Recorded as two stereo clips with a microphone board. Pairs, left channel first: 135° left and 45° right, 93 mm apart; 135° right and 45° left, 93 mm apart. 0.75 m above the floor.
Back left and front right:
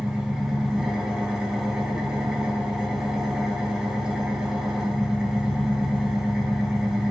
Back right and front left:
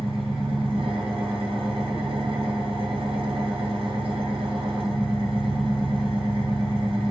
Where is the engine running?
40° left, 1.6 m.